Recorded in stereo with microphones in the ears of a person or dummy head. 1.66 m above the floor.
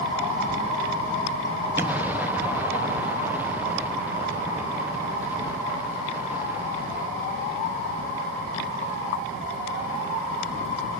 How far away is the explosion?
About 0.8 m.